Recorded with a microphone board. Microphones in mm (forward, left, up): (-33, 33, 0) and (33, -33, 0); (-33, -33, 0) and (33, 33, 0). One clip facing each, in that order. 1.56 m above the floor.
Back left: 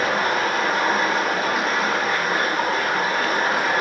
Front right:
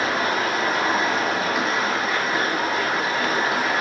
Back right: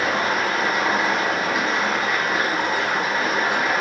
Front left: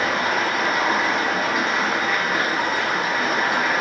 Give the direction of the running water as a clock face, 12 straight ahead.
7 o'clock.